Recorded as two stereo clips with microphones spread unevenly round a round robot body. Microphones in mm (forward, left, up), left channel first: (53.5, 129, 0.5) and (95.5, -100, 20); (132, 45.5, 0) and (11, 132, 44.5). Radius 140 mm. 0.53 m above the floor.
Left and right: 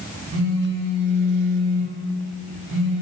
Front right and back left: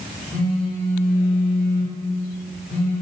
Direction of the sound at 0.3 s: 95° right.